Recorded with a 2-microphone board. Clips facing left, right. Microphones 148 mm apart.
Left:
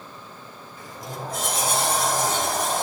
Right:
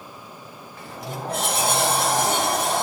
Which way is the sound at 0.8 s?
70° right (ahead or behind).